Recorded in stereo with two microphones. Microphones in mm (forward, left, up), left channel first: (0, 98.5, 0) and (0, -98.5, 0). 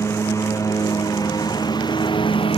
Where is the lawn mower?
15° left (ahead or behind); by 2.6 s 25° left (ahead or behind).